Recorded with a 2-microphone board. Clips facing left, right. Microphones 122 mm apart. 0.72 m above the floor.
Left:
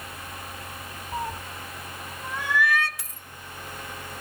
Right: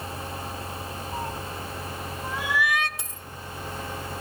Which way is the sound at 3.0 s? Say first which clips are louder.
Right 4 dB; 25° right (ahead or behind).